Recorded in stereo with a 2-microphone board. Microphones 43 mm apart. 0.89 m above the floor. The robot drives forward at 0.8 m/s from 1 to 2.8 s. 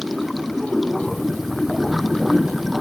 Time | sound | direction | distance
0.0 | running water | centre (ahead or behind) | ?